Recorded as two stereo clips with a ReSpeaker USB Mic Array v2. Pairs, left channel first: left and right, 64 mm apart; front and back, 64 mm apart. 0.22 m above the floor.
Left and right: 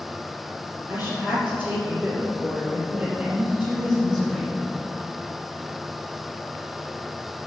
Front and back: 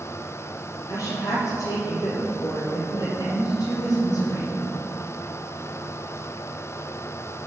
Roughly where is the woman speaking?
Ahead.